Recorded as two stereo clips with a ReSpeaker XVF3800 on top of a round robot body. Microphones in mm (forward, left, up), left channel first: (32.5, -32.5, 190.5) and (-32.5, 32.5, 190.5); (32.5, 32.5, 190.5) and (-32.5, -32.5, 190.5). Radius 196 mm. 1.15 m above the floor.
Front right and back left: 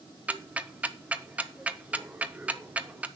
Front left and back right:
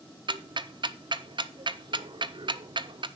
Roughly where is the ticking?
Behind right.